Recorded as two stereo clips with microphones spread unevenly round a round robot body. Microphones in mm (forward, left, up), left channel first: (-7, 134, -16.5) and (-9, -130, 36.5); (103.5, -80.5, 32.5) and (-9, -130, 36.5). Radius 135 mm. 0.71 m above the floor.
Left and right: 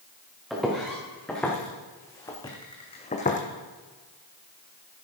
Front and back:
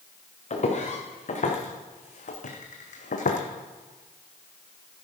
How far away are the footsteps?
About 4 m.